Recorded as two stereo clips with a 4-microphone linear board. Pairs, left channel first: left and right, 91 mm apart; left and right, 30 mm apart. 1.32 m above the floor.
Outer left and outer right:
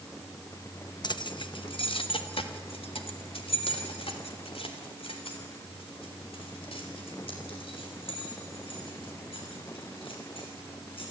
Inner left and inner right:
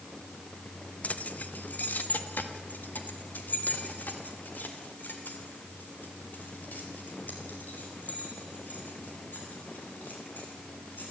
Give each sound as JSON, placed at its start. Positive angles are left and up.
{"t": 1.0, "sound": "keys jangling", "side_deg": 55, "distance_m": 1.0}